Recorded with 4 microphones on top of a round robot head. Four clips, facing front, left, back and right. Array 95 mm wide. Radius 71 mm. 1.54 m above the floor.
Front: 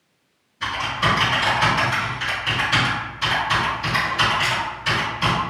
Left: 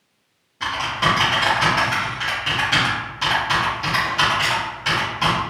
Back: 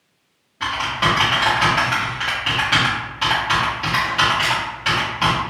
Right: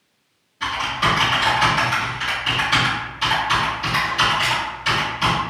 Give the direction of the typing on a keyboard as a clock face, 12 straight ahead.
7 o'clock.